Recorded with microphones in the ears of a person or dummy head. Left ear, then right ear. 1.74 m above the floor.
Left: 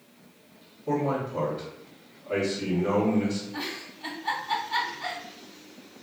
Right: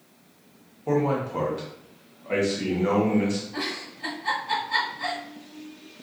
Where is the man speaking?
50° right (ahead or behind), 1.1 m.